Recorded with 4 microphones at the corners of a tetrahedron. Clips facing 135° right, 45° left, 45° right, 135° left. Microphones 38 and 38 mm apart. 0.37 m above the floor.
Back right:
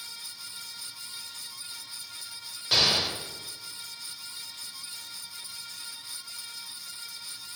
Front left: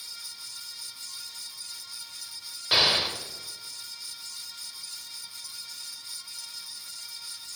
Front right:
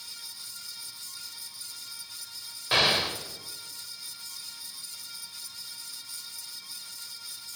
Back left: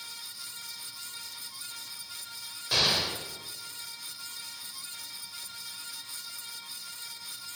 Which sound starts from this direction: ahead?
An explosion, at 2.7 s.